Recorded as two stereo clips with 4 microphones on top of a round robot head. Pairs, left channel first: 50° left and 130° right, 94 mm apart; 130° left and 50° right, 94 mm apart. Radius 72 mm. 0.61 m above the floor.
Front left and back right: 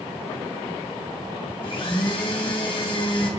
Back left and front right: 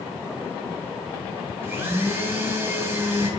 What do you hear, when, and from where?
1.6 s a blender: 15° left, 1.8 m